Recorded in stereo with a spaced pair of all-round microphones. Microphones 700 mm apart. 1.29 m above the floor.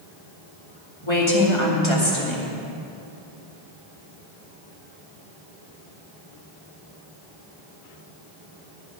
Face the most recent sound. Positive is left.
turn(degrees=40)  # may be behind; listen again after turning